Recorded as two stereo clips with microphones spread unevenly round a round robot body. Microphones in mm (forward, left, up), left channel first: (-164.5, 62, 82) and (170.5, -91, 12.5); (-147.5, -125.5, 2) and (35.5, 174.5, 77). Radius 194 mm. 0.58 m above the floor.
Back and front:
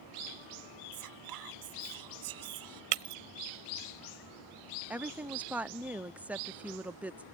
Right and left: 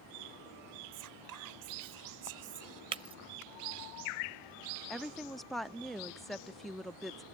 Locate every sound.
0.9 s whispering: 10° left
2.9 s breaking glass: 20° right
4.9 s a woman speaking: 70° right